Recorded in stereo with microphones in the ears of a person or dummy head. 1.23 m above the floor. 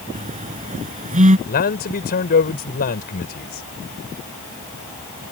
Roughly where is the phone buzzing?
Right.